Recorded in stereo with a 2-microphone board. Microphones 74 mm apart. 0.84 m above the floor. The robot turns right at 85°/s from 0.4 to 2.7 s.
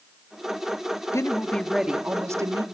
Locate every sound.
1.1 s a woman speaking: 125° left, 1.8 m; by 2.6 s 105° right, 1.8 m